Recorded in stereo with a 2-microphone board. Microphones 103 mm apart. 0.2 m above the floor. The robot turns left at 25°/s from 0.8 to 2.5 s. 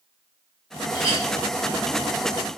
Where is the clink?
40° left (ahead or behind), 0.9 m; by 1.2 s 35° left (ahead or behind), 0.9 m.